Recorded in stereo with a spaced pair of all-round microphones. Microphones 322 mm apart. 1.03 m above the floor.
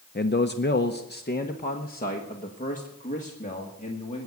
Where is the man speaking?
30° left (ahead or behind), 0.6 m; by 4.3 s 20° left (ahead or behind), 2.5 m.